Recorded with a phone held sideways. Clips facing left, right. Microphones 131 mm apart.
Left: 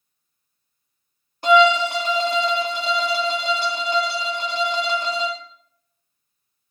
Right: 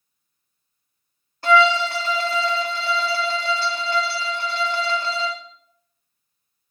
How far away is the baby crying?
No baby crying in this recording.